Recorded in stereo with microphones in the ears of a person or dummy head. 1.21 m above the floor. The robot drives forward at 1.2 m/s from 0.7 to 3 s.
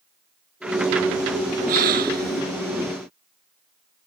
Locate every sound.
1.7 s a gasp: 50° right (ahead or behind); by 2.4 s 55° right (ahead or behind)